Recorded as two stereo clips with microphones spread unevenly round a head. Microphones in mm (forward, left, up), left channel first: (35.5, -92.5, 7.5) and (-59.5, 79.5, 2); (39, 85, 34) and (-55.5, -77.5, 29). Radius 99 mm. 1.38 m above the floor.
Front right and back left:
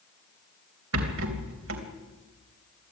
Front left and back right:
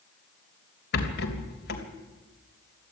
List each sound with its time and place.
0.9 s a rattle: 95° left, 3 m